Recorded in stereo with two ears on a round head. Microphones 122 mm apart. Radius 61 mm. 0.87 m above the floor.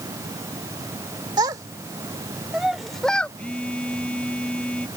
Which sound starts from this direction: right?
A child speaking, at 1.4 s.